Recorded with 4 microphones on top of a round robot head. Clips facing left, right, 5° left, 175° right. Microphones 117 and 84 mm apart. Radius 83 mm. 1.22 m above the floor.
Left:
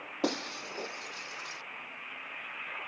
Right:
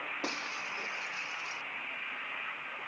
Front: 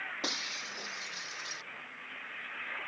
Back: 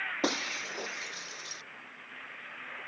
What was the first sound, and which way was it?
Breaking glass, 135° left.